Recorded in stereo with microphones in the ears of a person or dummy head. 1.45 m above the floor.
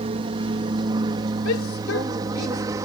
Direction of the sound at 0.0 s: 35° right (ahead or behind).